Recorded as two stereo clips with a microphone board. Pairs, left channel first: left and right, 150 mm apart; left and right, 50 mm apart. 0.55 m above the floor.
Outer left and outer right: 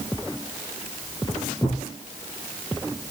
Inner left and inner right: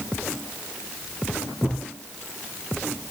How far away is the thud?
About 5 m.